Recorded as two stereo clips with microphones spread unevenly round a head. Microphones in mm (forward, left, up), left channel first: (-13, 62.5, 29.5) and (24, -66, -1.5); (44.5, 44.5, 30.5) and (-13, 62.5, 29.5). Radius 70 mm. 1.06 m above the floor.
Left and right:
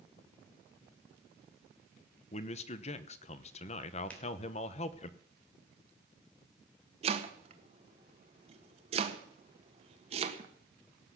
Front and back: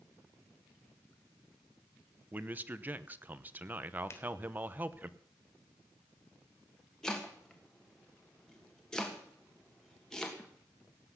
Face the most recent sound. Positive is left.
turn(degrees=-100)